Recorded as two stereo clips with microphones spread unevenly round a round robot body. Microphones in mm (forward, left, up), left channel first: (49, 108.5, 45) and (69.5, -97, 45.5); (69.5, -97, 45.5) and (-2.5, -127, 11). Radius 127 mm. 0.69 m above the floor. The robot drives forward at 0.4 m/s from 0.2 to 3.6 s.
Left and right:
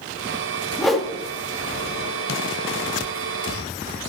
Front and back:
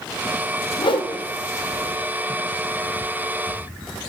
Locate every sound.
0.8 s a whoosh: 5° left, 1.0 m